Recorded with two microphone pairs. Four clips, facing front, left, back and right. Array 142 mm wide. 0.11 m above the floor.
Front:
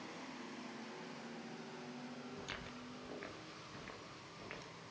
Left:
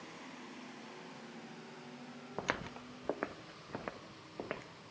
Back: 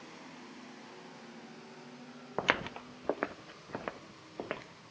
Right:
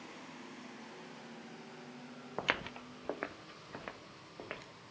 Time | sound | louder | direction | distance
2.4 | footsteps | right 2 dB, back 16 dB | 175° right | 0.5 m